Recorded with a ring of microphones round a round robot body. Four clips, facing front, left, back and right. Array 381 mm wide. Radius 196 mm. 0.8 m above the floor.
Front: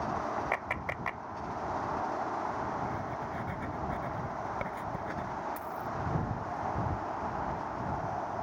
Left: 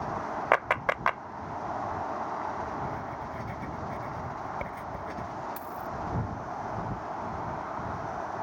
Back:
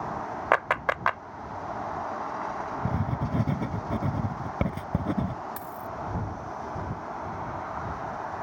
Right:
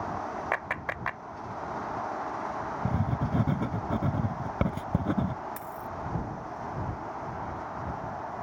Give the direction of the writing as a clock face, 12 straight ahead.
4 o'clock.